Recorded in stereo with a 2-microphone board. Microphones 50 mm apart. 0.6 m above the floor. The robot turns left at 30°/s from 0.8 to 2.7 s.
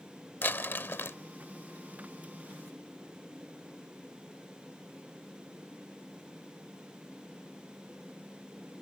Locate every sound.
0.4 s crumpling: 45° left (ahead or behind); by 1.2 s 55° left (ahead or behind)